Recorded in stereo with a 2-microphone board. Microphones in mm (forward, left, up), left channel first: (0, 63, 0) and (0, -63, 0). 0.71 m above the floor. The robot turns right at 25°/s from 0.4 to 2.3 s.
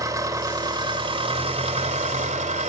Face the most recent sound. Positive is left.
turn(degrees=-105)